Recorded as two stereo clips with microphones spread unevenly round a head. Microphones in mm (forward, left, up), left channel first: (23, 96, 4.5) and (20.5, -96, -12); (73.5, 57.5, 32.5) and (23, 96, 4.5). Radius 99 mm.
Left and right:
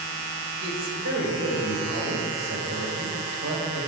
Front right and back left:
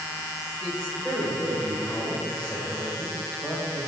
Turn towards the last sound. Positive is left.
turn(degrees=-120)